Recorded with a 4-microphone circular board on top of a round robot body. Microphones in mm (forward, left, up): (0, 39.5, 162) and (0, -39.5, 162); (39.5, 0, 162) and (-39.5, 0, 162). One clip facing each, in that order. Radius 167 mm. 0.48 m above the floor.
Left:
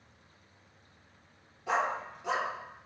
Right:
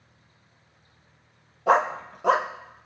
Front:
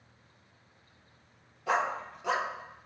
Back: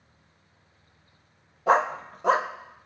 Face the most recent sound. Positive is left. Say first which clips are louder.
# right 9 dB, back 7 dB
turn(degrees=-130)